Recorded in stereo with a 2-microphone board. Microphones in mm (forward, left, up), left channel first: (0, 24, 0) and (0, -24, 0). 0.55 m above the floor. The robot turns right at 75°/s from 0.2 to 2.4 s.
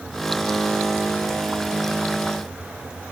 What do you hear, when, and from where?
Only background noise.